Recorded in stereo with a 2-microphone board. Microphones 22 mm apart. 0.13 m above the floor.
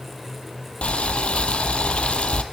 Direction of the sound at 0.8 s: 75° left (ahead or behind).